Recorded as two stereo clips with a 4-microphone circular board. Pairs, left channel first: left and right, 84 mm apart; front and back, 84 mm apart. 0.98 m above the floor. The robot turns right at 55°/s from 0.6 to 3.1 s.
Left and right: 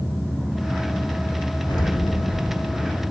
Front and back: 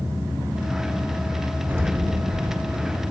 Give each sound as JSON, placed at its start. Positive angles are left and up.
{"t": 1.7, "sound": "an explosion", "azimuth_deg": 115, "distance_m": 1.1}